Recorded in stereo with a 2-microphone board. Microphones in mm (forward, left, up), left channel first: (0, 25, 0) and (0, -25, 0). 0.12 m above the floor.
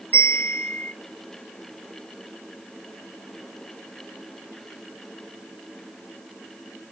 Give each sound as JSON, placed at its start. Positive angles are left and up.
{"t": 0.1, "sound": "a bell", "side_deg": 30, "distance_m": 1.6}